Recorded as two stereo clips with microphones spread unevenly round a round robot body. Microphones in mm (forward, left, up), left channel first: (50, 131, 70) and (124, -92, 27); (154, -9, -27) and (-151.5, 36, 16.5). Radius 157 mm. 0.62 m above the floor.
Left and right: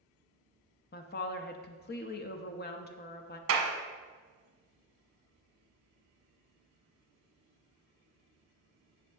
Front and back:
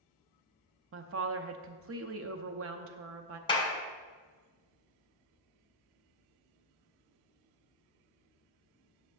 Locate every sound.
0.9 s a woman speaking: 145° left, 0.7 m
3.5 s a clap: 80° right, 1.4 m